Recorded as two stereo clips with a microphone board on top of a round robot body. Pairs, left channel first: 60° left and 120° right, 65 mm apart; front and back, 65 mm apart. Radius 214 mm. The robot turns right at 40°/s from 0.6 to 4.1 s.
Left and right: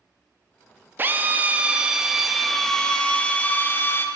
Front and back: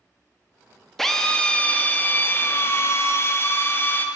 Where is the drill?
85° right, 1.3 m; by 4.1 s 40° left, 1.3 m.